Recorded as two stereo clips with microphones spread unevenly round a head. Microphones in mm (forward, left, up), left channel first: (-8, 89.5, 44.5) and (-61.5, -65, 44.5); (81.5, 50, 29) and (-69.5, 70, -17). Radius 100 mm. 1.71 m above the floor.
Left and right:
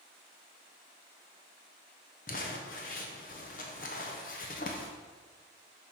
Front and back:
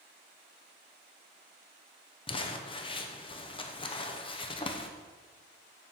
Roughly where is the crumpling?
Ahead left.